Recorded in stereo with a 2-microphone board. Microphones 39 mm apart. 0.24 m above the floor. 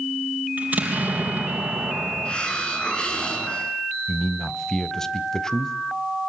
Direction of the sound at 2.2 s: 25° left (ahead or behind).